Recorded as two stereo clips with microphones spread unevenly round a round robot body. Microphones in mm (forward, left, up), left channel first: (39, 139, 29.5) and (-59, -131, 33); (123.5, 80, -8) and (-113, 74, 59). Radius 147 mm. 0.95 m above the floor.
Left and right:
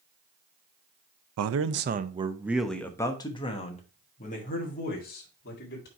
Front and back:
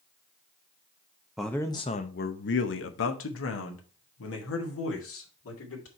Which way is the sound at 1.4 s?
85° right.